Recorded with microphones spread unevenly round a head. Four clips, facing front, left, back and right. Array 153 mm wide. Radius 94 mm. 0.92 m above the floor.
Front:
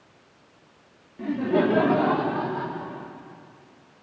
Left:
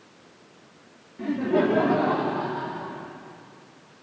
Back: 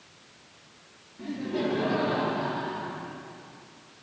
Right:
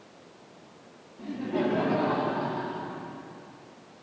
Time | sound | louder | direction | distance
1.2 | laughter | left 6 dB, front 8 dB | 70° left | 1.8 m